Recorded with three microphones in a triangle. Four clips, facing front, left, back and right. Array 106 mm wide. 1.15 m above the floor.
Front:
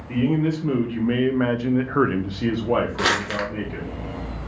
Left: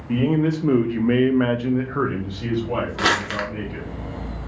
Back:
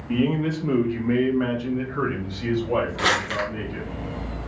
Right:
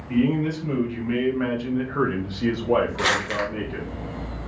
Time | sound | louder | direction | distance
0.1 | a man speaking | left 2 dB, front 1 dB | 100° left | 1.1 m
3.0 | crumpling | left 1 dB, front 1 dB | 60° left | 1.1 m